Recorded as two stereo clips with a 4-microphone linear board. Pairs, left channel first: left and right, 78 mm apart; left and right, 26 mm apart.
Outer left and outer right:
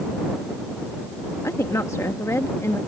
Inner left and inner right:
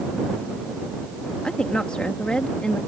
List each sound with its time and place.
1.4 s a woman speaking: 40° left (ahead or behind)